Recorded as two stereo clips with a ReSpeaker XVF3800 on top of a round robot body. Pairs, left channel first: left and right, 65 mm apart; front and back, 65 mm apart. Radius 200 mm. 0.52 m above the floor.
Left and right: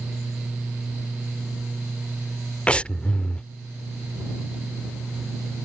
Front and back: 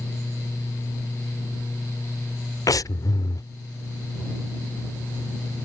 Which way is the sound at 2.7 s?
20° left.